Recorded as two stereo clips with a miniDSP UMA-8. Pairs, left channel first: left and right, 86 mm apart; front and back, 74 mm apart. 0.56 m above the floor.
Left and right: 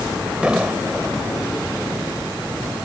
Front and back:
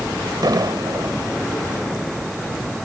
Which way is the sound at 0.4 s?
170° right.